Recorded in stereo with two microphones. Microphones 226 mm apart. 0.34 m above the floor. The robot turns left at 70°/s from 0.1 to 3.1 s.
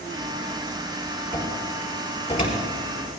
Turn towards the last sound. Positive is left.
turn(degrees=80)